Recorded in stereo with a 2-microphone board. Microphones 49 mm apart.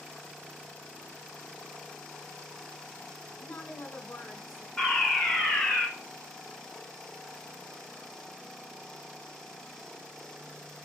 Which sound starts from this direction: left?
A woman speaking, at 3.4 s.